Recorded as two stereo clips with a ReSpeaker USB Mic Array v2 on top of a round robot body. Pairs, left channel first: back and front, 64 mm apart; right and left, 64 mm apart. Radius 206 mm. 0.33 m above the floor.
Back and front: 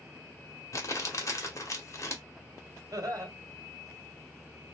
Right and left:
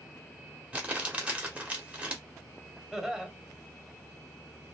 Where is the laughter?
5° left, 1.5 m.